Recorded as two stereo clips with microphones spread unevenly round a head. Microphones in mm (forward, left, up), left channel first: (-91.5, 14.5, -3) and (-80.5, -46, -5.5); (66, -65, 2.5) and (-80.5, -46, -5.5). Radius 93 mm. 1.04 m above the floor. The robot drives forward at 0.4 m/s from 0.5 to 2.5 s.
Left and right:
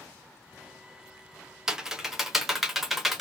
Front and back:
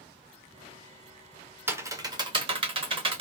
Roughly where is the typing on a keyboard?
Behind right.